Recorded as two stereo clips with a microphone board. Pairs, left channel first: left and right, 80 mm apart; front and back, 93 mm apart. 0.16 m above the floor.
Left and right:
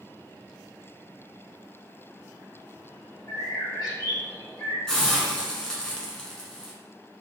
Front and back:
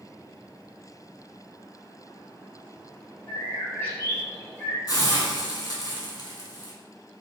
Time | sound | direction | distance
3.3 | a bird | 65° left | 1.7 m
4.9 | a hiss | 10° left | 0.8 m